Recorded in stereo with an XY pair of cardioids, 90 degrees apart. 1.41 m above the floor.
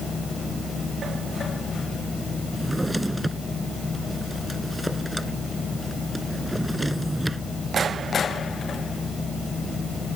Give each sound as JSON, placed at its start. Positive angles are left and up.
{"t": 0.0, "sound": "a machine running", "azimuth_deg": 45}
{"t": 2.5, "sound": "a drawer", "azimuth_deg": -10}